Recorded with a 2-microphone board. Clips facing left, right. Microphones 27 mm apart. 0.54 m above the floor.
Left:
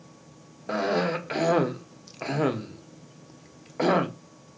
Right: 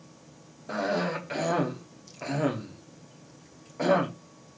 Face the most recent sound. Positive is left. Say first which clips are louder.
# left 3 dB
turn(degrees=25)  # may be behind; listen again after turning